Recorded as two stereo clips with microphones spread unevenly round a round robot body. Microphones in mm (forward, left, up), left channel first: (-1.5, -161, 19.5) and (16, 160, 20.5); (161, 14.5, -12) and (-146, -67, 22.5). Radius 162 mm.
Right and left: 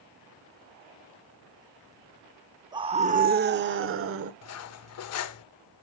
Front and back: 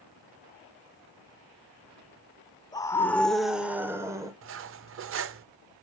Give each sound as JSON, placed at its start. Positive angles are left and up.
{"t": 2.7, "sound": "a scream", "azimuth_deg": 40, "distance_m": 0.8}
{"t": 4.4, "sound": "cutlery clinking", "azimuth_deg": -120, "distance_m": 0.5}